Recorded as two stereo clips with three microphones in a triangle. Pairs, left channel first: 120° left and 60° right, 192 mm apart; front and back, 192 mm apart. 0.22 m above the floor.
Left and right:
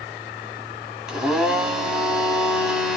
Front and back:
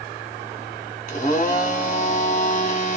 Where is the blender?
25° left, 1.0 m.